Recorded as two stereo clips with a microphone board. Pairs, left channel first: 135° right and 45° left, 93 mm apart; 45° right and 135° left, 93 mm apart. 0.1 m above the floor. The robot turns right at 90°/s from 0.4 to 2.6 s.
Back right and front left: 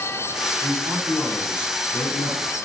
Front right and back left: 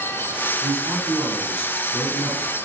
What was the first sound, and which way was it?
A man speaking, 70° left.